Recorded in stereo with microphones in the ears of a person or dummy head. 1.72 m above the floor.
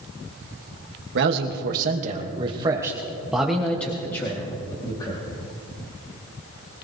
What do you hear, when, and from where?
1.1 s a man speaking: 65° right (ahead or behind), 1.8 m; by 5.2 s 25° left (ahead or behind), 3 m